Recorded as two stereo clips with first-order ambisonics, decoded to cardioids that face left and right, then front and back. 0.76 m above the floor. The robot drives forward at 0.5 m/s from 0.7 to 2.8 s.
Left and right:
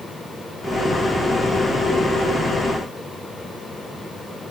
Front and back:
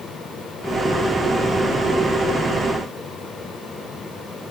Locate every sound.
Only background noise.